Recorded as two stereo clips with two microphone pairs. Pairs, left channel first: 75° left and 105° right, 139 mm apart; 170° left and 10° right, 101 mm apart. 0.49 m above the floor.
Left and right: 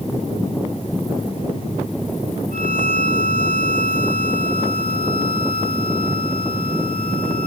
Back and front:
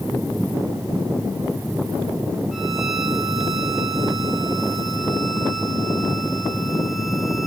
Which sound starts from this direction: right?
A violin, at 2.5 s.